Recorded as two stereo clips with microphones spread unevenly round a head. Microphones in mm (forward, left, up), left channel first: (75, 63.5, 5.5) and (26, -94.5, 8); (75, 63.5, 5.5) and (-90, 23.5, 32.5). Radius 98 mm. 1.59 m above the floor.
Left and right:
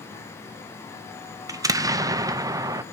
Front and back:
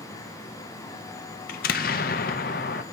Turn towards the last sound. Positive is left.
turn(degrees=-35)